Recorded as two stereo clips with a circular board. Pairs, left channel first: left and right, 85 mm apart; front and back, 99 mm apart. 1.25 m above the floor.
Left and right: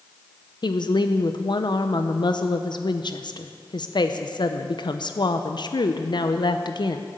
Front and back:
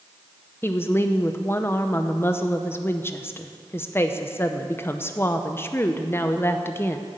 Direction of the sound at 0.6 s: 65° left.